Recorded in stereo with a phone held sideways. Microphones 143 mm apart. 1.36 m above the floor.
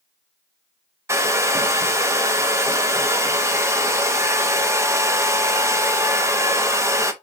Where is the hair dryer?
20° right (ahead or behind), 0.7 m.